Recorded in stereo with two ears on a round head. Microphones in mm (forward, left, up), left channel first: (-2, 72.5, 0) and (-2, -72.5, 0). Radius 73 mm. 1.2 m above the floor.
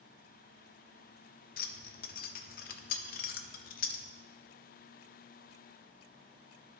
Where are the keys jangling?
55° left (ahead or behind), 0.6 m.